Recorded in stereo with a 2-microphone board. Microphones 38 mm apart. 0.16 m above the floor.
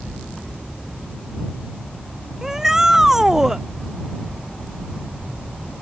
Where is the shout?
15° right (ahead or behind).